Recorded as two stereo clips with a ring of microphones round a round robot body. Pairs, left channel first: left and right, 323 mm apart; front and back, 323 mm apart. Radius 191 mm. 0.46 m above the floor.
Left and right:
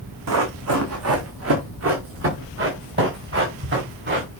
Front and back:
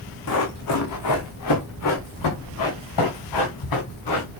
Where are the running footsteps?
50° right, 2.5 m; by 4.4 s 35° right, 5 m.